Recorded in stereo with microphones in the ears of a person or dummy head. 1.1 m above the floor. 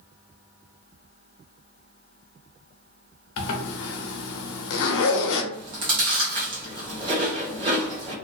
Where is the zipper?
70° left (ahead or behind), 0.6 m.